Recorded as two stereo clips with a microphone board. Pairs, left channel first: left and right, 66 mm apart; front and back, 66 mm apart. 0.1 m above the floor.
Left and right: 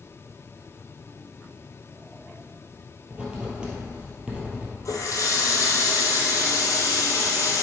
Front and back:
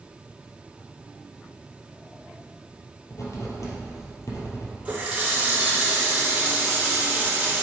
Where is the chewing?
No chewing in this recording.